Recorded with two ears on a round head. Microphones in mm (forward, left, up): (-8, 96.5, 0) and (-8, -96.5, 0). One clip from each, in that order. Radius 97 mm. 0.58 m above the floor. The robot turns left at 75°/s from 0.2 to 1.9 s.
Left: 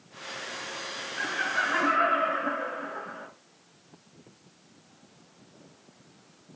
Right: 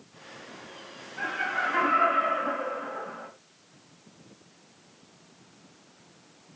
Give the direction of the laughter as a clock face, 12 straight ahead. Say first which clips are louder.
Even; 8 o'clock.